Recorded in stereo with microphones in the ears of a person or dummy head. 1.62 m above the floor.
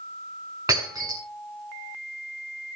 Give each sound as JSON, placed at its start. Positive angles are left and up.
{"t": 0.7, "sound": "breaking glass", "side_deg": -20, "distance_m": 7.5}